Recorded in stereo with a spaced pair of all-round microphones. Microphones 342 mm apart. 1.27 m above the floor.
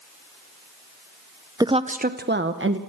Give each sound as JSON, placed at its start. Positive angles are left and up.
{"t": 1.6, "sound": "a woman speaking", "side_deg": -10, "distance_m": 0.6}